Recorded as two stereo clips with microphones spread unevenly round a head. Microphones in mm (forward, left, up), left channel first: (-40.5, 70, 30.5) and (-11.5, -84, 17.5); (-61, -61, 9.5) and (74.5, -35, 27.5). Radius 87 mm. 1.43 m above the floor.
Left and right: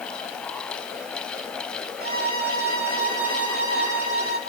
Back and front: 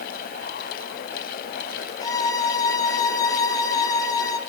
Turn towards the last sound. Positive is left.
turn(degrees=-105)